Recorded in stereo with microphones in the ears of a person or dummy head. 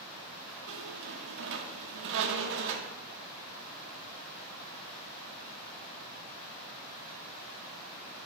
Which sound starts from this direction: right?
A squeak, at 0.7 s.